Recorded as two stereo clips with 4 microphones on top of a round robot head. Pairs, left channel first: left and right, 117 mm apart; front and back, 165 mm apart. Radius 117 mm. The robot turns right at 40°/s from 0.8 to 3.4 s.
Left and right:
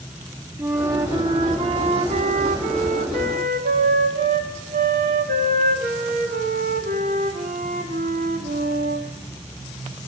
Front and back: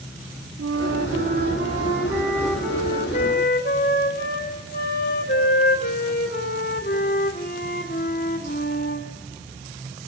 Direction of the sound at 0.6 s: 160° right.